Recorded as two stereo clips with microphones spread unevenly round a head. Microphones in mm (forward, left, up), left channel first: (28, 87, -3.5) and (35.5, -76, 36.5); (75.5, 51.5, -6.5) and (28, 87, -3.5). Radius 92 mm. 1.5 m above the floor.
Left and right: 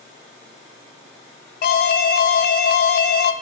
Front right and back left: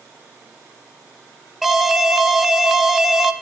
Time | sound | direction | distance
1.6 | an alarm | 55° left | 0.6 m